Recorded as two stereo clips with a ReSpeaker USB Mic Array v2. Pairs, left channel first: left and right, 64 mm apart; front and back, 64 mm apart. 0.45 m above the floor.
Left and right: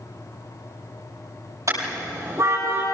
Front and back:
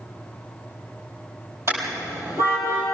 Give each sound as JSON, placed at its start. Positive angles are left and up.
{"t": 1.7, "sound": "a car horn", "azimuth_deg": -130, "distance_m": 7.5}